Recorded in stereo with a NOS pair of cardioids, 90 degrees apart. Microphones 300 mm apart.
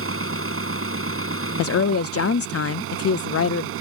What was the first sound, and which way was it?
An engine running, 45° right.